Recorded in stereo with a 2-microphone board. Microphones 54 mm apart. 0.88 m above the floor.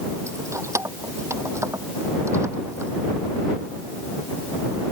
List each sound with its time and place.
0.3 s keys jangling: 75° right (ahead or behind)